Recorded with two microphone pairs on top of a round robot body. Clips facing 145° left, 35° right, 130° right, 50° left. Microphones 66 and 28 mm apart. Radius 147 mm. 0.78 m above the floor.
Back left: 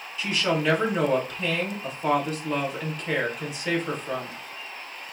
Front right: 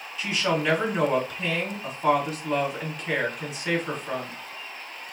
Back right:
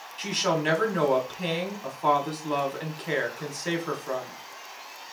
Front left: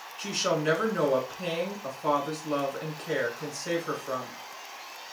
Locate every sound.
0.2 s a woman speaking: 120° right, 2.5 m